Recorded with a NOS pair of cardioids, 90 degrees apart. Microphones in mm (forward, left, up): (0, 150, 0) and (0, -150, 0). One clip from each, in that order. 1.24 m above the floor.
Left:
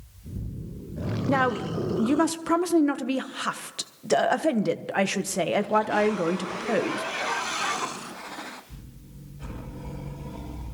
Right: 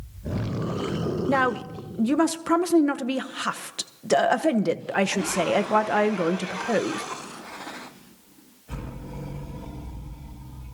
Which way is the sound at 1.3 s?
5° right.